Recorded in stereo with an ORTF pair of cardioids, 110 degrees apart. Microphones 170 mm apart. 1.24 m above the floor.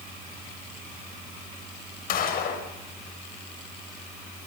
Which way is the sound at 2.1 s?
60° left.